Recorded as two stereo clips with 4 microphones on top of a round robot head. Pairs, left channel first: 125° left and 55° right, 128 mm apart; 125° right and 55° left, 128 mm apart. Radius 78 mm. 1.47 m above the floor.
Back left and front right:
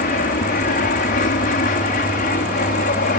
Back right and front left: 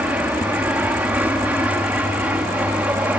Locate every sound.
0.0 s an aircraft: 135° left; by 3.2 s 130° left